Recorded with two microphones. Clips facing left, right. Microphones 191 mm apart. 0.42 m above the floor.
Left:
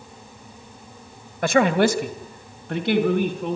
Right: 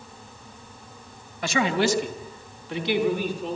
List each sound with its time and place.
1.4 s a man speaking: 50° left (ahead or behind), 1.7 m; by 3.6 s 55° left (ahead or behind), 4.5 m